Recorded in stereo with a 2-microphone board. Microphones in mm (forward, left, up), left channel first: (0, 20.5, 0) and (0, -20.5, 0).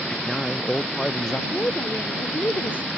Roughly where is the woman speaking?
Left.